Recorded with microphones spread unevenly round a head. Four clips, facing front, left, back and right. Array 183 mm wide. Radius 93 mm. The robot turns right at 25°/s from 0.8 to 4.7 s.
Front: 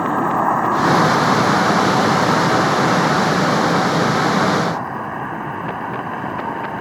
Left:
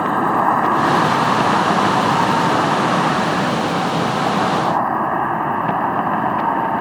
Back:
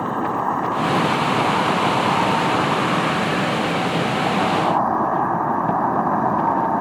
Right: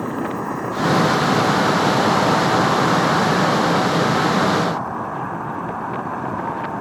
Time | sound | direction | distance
0.0 | an insect | 45° left | ?